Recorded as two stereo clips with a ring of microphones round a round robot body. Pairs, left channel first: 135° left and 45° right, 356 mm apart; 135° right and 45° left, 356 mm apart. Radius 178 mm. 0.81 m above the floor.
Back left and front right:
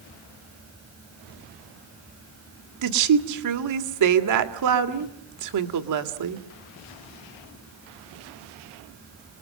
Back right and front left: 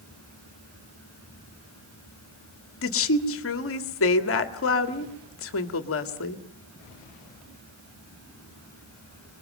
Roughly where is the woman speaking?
Right.